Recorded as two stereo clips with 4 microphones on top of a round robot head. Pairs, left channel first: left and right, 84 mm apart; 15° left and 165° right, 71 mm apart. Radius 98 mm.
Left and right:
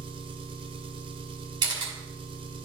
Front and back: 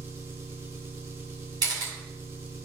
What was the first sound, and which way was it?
An engine running, 110° right.